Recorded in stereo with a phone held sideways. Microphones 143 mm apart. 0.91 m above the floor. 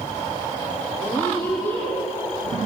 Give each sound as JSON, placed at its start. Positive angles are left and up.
{"t": 1.0, "sound": "a woman speaking", "side_deg": 10, "distance_m": 2.5}